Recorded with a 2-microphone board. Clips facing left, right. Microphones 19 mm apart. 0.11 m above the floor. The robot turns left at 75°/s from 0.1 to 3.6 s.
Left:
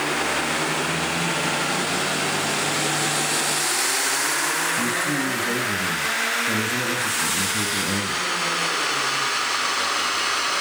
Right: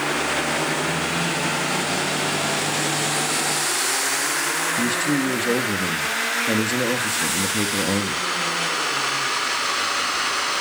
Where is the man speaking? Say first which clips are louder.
Right 2 dB; 45° right (ahead or behind), 2.5 m.